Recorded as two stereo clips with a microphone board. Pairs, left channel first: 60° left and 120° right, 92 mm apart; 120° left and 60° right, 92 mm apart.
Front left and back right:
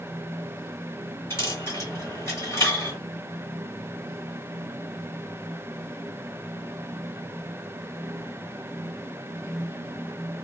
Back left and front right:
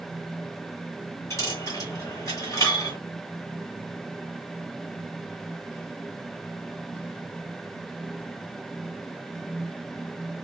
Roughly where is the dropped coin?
Left.